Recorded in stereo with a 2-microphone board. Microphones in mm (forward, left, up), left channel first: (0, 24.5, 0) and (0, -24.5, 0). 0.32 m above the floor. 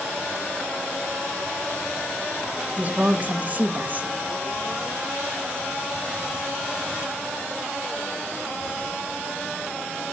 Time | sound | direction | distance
2.8 | a woman speaking | 35° right (ahead or behind) | 1.0 m